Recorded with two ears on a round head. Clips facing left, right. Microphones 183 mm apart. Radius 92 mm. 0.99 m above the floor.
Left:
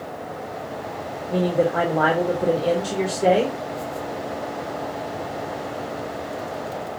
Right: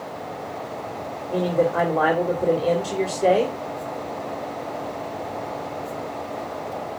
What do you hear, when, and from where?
1.3 s a man speaking: 5° left (ahead or behind), 3 m